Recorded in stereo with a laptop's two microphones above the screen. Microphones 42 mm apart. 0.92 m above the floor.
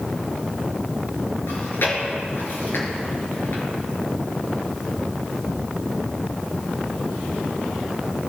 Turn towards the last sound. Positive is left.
turn(degrees=75)  # may be behind; listen again after turning